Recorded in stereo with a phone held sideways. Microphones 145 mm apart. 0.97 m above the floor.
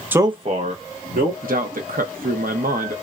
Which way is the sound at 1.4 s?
75° right (ahead or behind).